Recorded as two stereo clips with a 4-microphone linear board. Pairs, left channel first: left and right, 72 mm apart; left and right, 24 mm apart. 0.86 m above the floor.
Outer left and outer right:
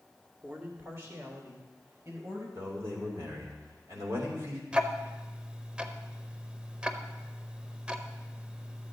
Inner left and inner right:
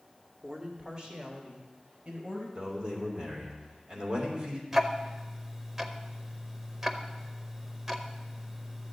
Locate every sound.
0.4 s a man speaking: 25° right (ahead or behind), 1.5 m; by 2.5 s 50° right (ahead or behind), 4 m
2.5 s a man speaking: 45° right (ahead or behind), 3 m
4.7 s ticking: 15° right (ahead or behind), 0.7 m